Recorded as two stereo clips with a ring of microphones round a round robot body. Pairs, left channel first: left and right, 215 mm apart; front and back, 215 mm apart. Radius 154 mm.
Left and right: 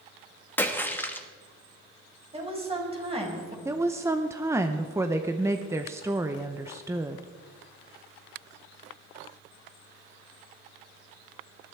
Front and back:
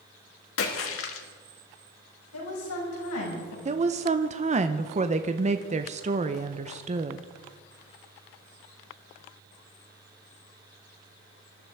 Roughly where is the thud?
No thud in this recording.